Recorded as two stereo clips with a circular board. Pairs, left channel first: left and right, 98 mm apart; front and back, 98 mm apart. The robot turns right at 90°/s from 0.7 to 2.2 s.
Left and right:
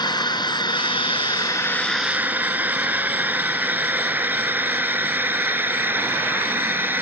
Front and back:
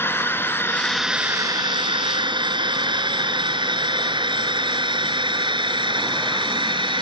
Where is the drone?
60° left; by 7.0 s 160° right.